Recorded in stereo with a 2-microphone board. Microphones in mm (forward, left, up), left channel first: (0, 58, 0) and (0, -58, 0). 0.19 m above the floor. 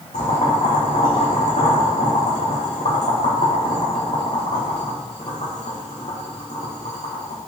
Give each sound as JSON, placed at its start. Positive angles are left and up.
{"t": 0.1, "sound": "boiling", "side_deg": 80, "distance_m": 4.0}